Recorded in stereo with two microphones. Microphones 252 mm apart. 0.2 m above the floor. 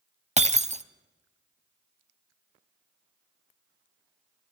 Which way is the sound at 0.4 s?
25° right (ahead or behind).